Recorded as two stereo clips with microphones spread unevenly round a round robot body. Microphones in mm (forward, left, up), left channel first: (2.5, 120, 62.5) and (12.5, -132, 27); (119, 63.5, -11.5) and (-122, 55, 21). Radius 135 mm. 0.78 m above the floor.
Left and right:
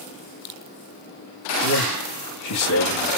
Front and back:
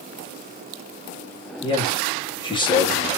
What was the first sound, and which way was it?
A man speaking, 70° left.